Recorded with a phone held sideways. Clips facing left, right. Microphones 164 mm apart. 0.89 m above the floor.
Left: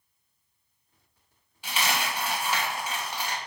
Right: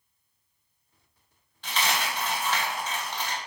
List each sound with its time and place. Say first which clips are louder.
1.6 s a dropped coin: even; 10° left (ahead or behind), 0.7 m